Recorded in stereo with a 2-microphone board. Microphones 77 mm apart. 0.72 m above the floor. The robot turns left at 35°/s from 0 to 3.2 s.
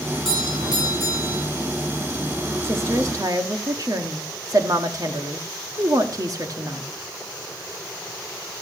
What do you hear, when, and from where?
0.1 s a doorbell: 10° left, 9.5 m; by 1.4 s 40° right, 9.5 m
2.6 s a woman speaking: 35° right (ahead or behind), 1.5 m; by 6.9 s 45° right (ahead or behind), 1.5 m